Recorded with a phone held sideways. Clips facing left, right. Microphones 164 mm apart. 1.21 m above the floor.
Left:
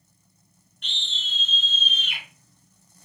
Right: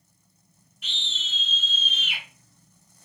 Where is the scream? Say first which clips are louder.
Even; 5° right (ahead or behind), 4.5 m.